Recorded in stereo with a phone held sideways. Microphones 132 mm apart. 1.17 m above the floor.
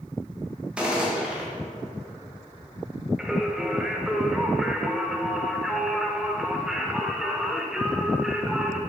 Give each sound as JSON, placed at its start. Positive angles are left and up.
{"t": 0.8, "sound": "a gunshot", "side_deg": -10, "distance_m": 1.6}
{"t": 3.2, "sound": "singing", "side_deg": -5, "distance_m": 0.8}